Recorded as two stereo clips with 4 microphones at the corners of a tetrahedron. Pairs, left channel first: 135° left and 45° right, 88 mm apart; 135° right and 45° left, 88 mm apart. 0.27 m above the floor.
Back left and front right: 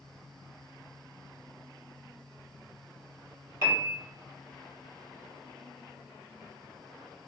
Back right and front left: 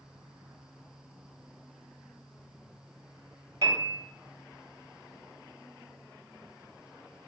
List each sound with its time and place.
3.6 s a piano: 5° left, 0.9 m